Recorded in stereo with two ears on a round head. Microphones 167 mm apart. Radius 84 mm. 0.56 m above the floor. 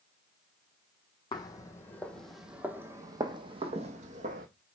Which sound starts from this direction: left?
Footsteps, at 1.3 s.